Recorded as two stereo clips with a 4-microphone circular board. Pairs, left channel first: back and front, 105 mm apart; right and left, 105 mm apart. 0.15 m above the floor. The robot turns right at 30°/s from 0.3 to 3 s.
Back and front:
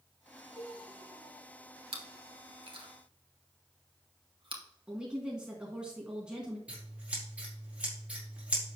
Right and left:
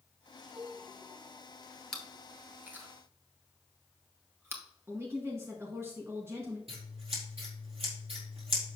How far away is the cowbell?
About 2.5 m.